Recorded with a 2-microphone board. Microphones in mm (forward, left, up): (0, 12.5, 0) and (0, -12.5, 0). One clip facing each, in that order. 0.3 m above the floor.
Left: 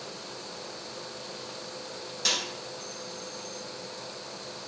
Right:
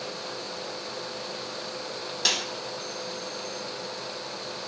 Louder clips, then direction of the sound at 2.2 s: Right 2 dB; 25° right (ahead or behind).